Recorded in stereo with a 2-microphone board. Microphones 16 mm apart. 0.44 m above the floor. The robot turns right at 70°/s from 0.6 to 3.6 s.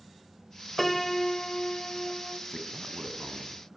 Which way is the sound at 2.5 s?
Centre (ahead or behind).